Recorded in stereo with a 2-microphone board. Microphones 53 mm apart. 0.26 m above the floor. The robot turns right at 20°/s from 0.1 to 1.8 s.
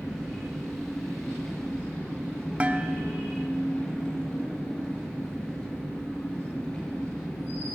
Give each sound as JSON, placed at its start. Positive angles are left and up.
{"t": 0.0, "sound": "an engine running", "azimuth_deg": -20, "distance_m": 4.5}
{"t": 2.6, "sound": "dishes clattering", "side_deg": -25, "distance_m": 0.7}